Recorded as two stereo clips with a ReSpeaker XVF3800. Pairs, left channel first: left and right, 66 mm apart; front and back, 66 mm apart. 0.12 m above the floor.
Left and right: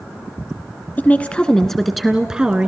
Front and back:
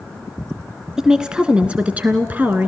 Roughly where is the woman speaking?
Left.